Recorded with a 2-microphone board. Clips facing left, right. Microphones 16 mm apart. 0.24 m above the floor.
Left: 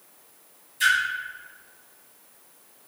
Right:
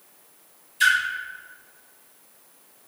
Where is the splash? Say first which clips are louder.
Right 2 dB; 25° right (ahead or behind), 1.2 m.